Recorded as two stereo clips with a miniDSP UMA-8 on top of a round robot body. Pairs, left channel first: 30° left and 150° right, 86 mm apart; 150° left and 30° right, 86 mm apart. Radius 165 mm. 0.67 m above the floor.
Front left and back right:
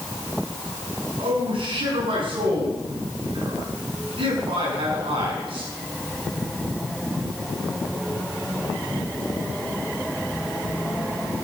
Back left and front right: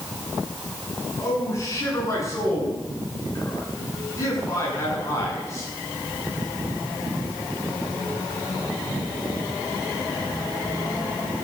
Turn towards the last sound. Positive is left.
turn(degrees=-155)